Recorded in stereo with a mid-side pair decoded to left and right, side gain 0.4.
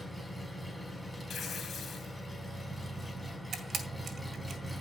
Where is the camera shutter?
55° right, 1.9 m.